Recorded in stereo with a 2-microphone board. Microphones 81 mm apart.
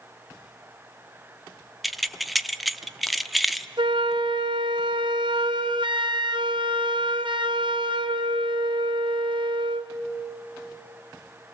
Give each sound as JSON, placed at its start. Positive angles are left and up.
{"t": 1.8, "sound": "keys jangling", "side_deg": 0, "distance_m": 0.6}
{"t": 3.8, "sound": "a flute", "side_deg": -70, "distance_m": 0.9}